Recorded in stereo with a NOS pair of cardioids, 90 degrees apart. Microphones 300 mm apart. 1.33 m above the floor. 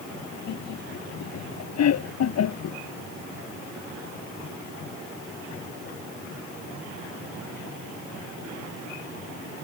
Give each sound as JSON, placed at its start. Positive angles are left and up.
{"t": 0.5, "sound": "laughter", "azimuth_deg": 65}